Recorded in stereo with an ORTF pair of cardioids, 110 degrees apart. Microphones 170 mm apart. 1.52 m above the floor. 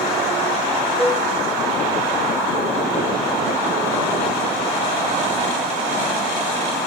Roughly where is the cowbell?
Ahead.